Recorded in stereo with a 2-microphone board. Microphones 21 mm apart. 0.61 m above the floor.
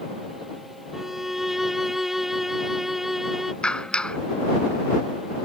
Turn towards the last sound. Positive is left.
turn(degrees=60)  # may be behind; listen again after turning